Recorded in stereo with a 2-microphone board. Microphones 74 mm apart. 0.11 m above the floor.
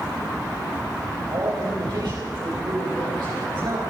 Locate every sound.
1.3 s a man speaking: 75° right (ahead or behind), 9.5 m